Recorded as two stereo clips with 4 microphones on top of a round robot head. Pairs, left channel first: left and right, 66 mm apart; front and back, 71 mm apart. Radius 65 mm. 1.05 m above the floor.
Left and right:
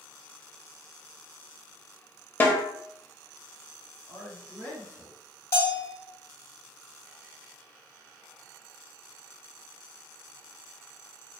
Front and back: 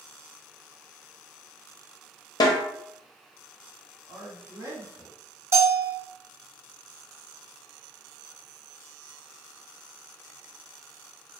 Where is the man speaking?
145° left, 1.6 m.